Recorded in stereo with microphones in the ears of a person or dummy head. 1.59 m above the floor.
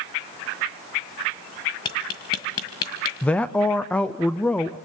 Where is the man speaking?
5° left (ahead or behind), 0.6 m.